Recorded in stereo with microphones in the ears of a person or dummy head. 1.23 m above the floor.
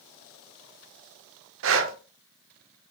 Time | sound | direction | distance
1.6 | breathing | 65° right (ahead or behind) | 1.1 m